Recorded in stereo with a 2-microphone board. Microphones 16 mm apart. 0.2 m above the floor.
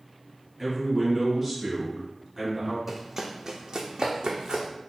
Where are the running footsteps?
20° right (ahead or behind), 0.7 m; by 4.7 s 85° right, 0.9 m.